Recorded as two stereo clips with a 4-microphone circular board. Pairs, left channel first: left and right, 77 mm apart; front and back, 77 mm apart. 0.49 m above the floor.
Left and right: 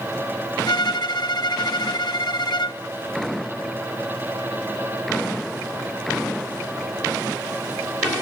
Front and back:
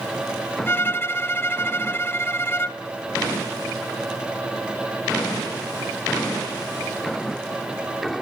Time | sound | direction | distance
0.7 | a violin | 60° left | 0.8 m